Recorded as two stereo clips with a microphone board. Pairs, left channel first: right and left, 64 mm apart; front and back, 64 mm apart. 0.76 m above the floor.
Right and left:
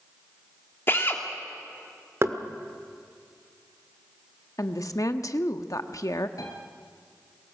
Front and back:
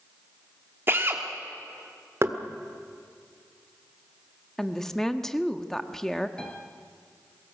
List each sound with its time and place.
0.9 s a drill: 135° right, 2 m
2.2 s knocking: 135° left, 1.4 m
4.6 s a woman speaking: 85° right, 1.1 m
6.4 s a piano: 75° right, 3 m